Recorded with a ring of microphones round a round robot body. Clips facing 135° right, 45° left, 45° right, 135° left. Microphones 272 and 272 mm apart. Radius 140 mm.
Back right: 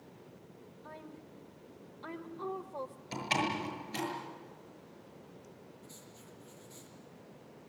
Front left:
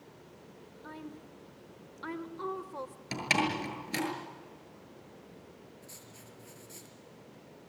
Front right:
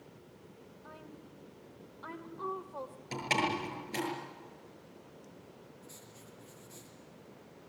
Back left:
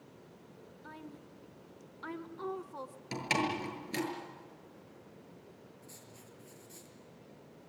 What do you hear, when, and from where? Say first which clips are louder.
0.8 s a woman speaking: front left 6 dB, back left 3 dB; 100° left, 1.6 m
3.1 s a door slam: front left 3 dB, even; 65° left, 7 m
5.8 s writing: even, front right 1 dB; 65° left, 6 m